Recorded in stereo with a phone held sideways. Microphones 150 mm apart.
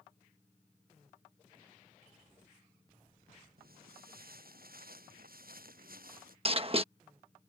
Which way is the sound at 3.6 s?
80° right.